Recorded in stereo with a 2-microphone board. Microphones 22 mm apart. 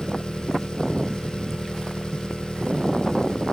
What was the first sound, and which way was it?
An engine running, 45° left (ahead or behind).